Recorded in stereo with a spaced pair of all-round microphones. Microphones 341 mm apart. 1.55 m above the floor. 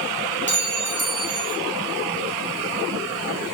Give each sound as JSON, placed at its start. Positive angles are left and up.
{"t": 0.5, "sound": "a clink", "side_deg": -35, "distance_m": 0.8}